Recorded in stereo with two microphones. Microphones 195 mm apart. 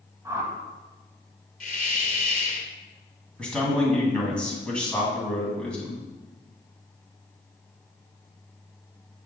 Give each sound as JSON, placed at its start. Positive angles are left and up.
{"t": 0.2, "sound": "a whoosh", "side_deg": -15, "distance_m": 0.8}
{"t": 1.6, "sound": "a hiss", "side_deg": 45, "distance_m": 0.8}
{"t": 3.4, "sound": "a man speaking", "side_deg": 5, "distance_m": 1.9}